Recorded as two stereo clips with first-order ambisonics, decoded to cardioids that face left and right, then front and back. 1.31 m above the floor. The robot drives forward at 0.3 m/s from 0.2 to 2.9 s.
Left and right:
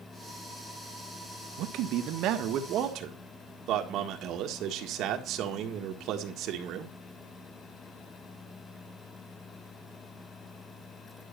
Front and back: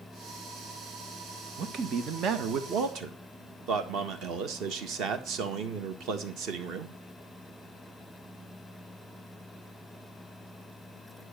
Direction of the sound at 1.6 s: 125° right.